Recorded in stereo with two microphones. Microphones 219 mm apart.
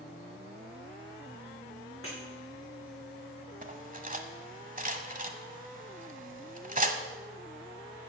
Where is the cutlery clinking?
40° right (ahead or behind), 1.1 m.